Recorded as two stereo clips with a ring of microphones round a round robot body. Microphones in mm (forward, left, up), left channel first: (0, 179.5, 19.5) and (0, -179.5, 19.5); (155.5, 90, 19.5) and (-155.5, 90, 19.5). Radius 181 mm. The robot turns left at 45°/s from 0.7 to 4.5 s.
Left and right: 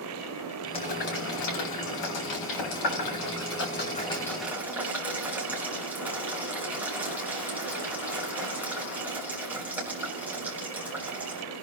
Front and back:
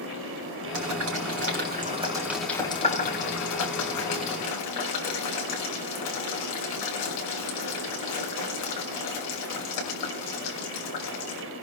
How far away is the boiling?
About 6 m.